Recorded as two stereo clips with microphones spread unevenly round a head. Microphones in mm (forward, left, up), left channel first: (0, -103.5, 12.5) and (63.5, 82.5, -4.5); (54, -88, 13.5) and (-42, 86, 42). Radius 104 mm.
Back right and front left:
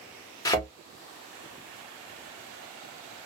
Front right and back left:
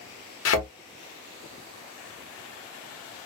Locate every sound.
0.5 s a thud: 40° right, 1.0 m